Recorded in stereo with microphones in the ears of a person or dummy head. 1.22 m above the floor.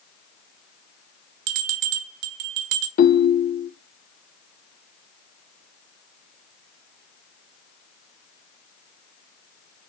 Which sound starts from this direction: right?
A bell, at 1.5 s.